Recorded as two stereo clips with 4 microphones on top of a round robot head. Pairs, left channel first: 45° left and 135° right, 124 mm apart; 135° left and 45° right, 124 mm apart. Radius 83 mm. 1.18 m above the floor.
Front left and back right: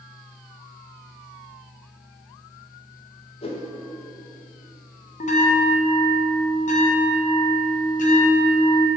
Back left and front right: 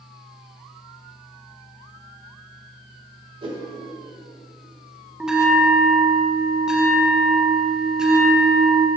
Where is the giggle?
I don't hear a giggle.